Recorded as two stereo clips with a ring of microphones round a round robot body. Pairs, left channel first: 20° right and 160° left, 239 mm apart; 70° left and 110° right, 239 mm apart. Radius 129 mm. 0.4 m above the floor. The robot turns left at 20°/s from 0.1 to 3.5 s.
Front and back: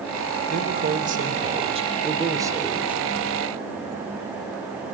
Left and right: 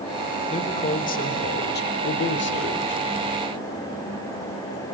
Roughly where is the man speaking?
Behind left.